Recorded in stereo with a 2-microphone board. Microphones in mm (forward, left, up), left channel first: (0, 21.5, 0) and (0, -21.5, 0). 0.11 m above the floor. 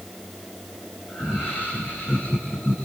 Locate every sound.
1.1 s laughter: 60° left (ahead or behind), 6.5 m